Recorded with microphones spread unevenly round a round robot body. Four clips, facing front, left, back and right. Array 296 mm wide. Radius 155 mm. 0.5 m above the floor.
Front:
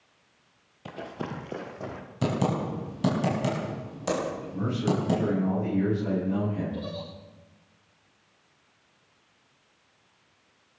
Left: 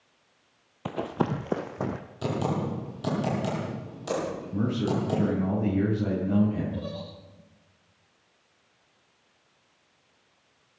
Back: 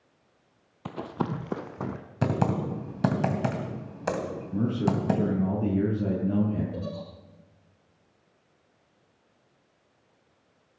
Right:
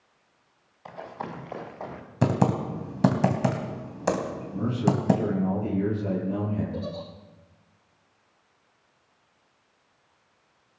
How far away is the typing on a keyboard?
About 3 m.